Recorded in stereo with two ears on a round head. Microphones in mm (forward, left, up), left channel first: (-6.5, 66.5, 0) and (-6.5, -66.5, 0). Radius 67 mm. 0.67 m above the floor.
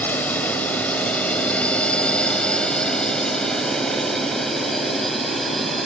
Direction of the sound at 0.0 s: 15° left (ahead or behind).